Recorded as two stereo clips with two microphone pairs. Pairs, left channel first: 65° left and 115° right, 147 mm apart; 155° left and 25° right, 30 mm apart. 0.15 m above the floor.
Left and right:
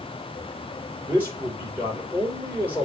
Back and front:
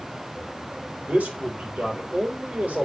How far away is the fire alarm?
I don't hear a fire alarm.